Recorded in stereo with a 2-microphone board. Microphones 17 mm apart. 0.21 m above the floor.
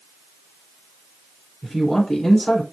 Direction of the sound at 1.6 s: 40° left (ahead or behind).